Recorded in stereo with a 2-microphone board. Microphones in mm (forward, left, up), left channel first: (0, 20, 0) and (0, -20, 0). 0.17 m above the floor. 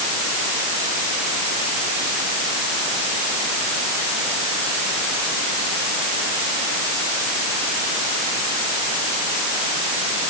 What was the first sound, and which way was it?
Only background noise.